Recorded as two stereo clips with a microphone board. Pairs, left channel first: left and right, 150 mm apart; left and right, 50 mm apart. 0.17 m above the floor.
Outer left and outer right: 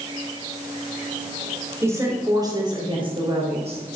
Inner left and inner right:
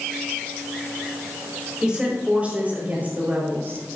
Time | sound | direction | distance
1.8 | a woman speaking | 20° right (ahead or behind) | 4.5 m